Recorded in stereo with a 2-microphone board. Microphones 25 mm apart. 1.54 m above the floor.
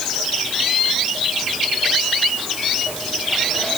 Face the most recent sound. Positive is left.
No sound to turn to.